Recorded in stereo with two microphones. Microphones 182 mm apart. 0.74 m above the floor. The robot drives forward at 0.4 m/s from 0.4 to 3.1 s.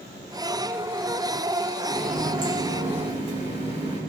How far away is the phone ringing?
I don't hear a phone ringing.